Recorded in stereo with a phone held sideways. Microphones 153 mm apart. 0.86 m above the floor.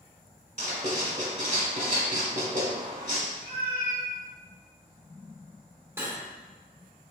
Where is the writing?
55° right (ahead or behind), 1.3 m.